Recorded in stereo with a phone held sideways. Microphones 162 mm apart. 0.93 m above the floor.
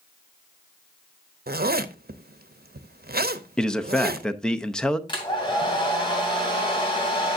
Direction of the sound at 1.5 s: 70° right (ahead or behind).